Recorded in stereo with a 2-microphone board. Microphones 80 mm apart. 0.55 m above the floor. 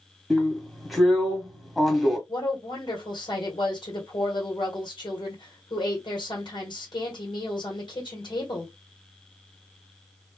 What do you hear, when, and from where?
0.3 s a drill: 5° left (ahead or behind), 1.4 m
2.3 s a woman speaking: 65° left (ahead or behind), 1.8 m